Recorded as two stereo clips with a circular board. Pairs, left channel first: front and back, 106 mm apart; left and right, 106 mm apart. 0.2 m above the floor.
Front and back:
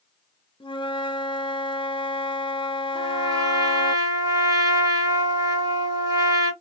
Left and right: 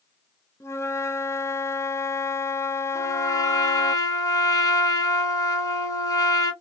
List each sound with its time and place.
0.6 s a flute: 30° left, 0.5 m
3.0 s a trumpet: 140° left, 1.2 m